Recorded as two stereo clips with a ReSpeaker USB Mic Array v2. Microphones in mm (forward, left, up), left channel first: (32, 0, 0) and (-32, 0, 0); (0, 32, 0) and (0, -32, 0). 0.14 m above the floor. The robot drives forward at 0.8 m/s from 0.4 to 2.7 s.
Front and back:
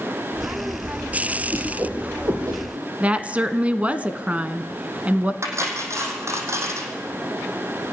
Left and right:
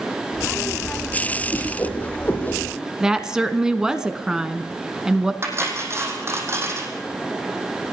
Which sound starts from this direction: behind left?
A whoosh, at 1.5 s.